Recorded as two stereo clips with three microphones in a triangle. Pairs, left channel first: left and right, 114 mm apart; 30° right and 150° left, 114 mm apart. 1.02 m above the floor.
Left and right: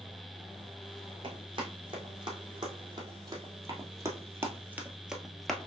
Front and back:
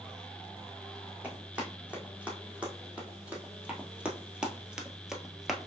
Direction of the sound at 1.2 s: 130° right.